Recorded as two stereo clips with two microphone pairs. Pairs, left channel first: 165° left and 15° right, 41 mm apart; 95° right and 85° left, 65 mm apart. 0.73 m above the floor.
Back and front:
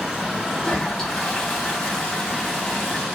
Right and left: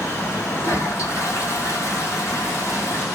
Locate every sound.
0.6 s a toilet flushing: 125° right, 2 m